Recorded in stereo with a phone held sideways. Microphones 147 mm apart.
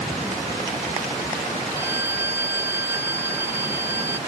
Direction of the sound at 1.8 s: 15° right (ahead or behind).